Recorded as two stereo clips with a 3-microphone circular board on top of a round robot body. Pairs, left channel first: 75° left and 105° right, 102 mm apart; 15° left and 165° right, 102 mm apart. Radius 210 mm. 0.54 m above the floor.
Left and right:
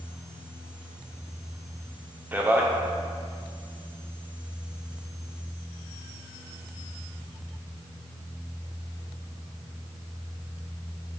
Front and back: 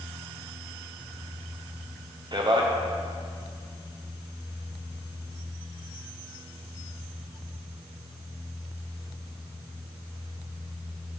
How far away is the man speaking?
About 1.0 m.